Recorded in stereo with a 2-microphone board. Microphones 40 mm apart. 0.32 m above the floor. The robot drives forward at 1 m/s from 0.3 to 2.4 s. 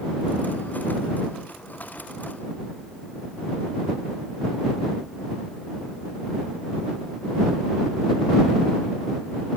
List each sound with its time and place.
Only background noise.